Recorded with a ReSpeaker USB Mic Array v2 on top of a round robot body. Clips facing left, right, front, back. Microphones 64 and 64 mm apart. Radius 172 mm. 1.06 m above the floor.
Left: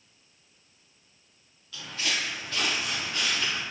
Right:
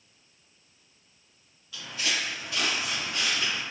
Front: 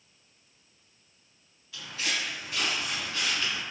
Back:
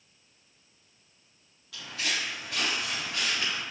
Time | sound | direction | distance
1.7 | footsteps | 175° right | 1.7 m